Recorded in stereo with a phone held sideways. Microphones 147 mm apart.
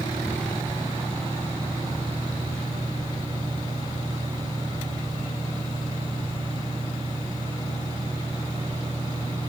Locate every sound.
0.0 s a fan: 35° right (ahead or behind), 2 m